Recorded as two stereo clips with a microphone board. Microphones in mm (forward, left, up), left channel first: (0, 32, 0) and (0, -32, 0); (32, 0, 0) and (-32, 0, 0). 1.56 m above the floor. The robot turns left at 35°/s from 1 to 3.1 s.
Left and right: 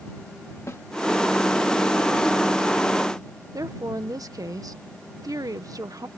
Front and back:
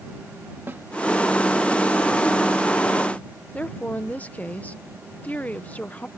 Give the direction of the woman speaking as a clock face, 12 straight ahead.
2 o'clock.